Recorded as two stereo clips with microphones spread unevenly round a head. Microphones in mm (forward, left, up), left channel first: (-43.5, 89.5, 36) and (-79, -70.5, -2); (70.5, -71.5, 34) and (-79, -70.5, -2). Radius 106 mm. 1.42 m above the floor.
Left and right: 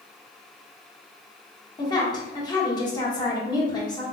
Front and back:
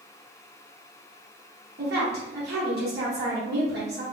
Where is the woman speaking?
140° left, 1.6 m.